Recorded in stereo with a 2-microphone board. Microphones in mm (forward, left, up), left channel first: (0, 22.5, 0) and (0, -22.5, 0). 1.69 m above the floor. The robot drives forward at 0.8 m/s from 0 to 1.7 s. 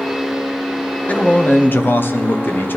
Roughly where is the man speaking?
Left.